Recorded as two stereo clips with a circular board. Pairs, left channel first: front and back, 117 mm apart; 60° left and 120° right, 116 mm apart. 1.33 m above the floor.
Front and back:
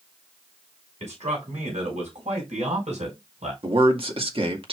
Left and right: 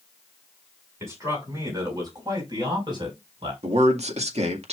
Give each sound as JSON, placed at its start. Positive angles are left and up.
{"t": 1.0, "sound": "a man speaking", "azimuth_deg": 175, "distance_m": 5.5}
{"t": 3.6, "sound": "a man speaking", "azimuth_deg": -140, "distance_m": 1.9}